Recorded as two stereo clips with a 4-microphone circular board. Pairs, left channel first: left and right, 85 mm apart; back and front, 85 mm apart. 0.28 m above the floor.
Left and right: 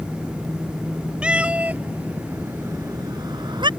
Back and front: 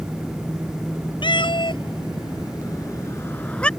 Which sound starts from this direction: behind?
A cat meowing, at 1.2 s.